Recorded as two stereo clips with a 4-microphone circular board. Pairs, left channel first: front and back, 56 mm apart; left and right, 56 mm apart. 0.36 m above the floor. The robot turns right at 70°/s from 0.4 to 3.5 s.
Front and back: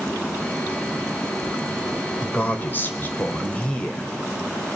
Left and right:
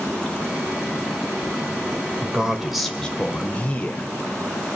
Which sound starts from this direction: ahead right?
A man speaking, at 2.2 s.